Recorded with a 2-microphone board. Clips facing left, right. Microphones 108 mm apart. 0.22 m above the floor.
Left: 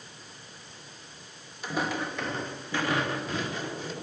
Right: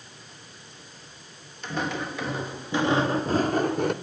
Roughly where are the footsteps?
Centre.